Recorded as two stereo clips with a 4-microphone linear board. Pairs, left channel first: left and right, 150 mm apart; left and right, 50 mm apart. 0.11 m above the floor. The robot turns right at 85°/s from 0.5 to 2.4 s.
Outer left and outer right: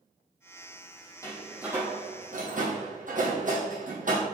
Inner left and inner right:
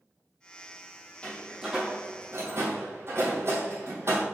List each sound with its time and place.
1.2 s a door slam: 25° left (ahead or behind), 2.5 m; by 4.2 s 70° right (ahead or behind), 2.5 m